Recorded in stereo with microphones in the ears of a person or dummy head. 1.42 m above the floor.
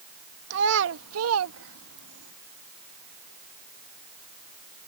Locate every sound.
0.5 s a child speaking: 55° right (ahead or behind); by 2.3 s 60° right (ahead or behind)